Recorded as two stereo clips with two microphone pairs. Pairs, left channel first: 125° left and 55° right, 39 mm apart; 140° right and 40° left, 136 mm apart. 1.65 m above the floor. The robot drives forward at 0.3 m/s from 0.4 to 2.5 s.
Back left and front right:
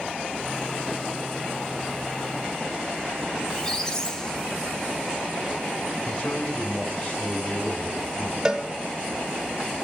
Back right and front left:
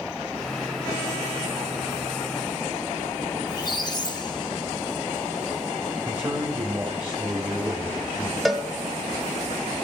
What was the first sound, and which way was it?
A squeak, 170° right.